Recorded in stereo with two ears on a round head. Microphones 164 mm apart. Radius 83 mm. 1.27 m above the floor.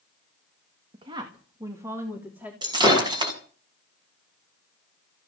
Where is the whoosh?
I don't hear a whoosh.